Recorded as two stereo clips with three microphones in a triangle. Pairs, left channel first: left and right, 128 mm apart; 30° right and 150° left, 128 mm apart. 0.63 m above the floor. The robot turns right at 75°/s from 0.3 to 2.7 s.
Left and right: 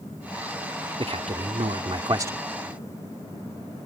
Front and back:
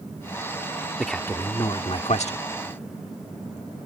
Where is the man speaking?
125° right; by 2.4 s 20° right.